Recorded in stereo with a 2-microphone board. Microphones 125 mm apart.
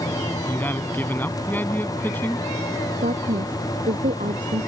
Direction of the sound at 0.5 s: 15° left (ahead or behind).